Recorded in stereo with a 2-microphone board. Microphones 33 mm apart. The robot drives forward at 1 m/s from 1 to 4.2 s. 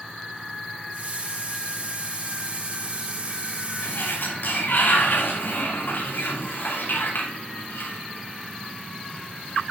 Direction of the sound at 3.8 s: 75° left (ahead or behind).